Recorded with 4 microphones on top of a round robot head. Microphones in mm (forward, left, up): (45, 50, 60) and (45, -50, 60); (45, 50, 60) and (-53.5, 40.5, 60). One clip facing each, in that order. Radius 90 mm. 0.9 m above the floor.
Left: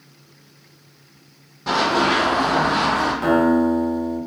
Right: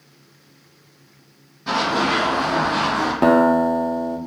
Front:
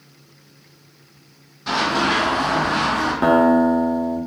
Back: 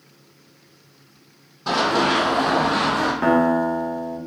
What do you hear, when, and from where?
1.7 s running footsteps: 150° left, 1.6 m; by 3.1 s 170° right, 1.4 m
3.2 s a guitar: 70° right, 0.5 m